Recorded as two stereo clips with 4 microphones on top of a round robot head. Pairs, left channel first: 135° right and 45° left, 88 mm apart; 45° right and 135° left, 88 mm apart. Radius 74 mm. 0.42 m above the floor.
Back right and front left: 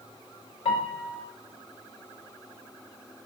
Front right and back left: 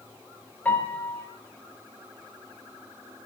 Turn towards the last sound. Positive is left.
turn(degrees=-115)